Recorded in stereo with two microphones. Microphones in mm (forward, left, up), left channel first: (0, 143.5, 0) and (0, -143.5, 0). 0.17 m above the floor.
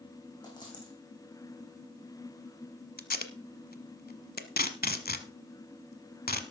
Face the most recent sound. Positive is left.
turn(degrees=30)  # may be behind; listen again after turning